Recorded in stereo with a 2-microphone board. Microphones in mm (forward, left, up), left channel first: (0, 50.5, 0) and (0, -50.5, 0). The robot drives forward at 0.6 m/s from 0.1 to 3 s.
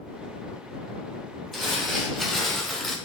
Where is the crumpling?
Centre (ahead or behind), 2 m; by 3.0 s 5° left (ahead or behind), 1.4 m.